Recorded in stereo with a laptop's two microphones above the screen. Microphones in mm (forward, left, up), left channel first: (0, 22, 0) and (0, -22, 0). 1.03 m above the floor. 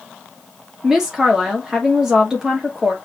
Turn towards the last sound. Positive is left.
turn(degrees=-15)  # may be behind; listen again after turning